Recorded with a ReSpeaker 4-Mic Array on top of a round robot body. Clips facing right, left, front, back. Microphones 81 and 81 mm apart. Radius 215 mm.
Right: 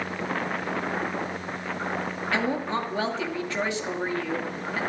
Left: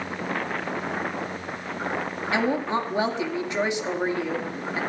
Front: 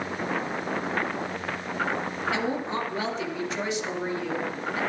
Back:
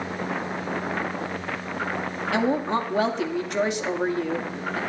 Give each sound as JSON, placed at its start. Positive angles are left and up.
{"t": 2.3, "sound": "a woman speaking", "azimuth_deg": 160, "distance_m": 2.5}